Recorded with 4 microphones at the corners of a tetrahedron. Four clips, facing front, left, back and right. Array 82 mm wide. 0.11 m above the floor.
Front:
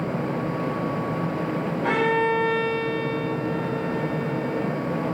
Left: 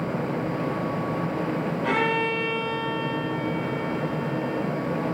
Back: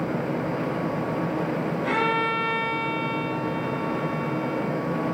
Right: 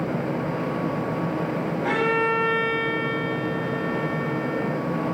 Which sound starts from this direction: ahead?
A violin, at 1.8 s.